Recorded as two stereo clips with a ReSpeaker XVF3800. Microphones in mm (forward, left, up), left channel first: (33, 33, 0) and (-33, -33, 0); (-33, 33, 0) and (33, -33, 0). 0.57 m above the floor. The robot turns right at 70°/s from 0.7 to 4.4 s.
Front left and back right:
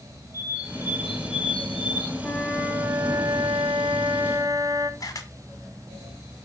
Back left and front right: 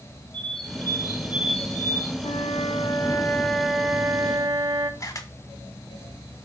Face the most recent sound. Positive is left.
turn(degrees=90)